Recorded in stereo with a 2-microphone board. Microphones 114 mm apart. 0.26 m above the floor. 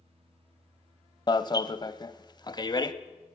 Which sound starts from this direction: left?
An alarm, at 1.3 s.